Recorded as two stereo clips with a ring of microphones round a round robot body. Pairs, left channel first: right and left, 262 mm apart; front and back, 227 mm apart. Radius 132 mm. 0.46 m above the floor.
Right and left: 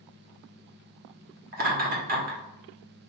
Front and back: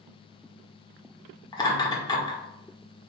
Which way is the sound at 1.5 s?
60° left.